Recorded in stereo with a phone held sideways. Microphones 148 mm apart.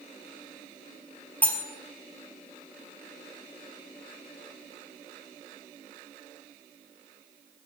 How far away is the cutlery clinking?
About 1.0 m.